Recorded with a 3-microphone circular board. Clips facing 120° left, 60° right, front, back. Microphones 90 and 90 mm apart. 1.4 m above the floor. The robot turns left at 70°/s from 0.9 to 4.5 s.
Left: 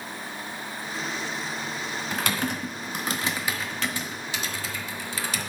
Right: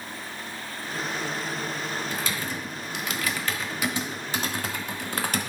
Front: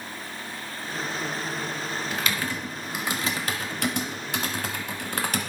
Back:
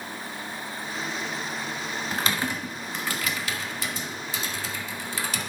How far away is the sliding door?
No sliding door in this recording.